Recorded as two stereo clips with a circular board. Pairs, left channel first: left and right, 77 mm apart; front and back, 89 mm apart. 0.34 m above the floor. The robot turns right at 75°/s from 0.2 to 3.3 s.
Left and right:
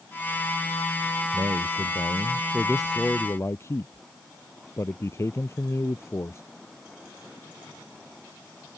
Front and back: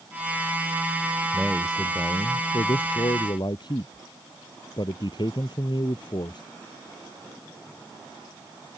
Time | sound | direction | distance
1.3 | a man speaking | 115° right | ?